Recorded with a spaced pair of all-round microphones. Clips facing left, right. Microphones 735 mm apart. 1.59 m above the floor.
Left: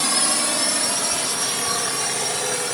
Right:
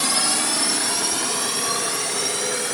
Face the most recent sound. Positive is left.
turn(degrees=30)  # may be behind; listen again after turning